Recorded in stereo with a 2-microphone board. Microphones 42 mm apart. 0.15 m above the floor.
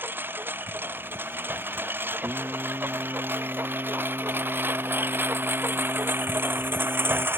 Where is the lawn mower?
55° right (ahead or behind); by 7.4 s 60° right (ahead or behind).